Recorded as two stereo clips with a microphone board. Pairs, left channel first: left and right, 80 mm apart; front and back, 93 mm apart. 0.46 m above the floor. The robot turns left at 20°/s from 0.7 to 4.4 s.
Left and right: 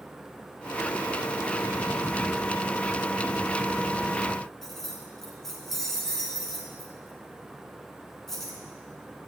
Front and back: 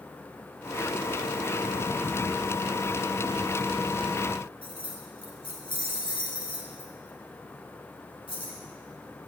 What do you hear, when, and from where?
4.6 s keys jangling: 5° left, 3 m